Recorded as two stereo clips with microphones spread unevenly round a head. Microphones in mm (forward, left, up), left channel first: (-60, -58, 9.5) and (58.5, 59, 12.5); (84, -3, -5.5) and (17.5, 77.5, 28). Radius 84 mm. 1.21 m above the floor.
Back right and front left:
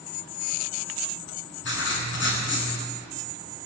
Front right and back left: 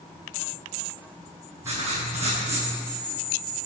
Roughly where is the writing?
Behind right.